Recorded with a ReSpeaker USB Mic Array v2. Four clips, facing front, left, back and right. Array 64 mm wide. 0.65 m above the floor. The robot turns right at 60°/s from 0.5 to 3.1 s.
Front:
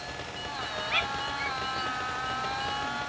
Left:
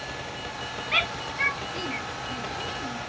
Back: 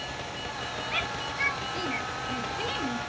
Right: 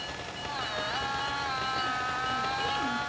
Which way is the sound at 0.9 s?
80° left.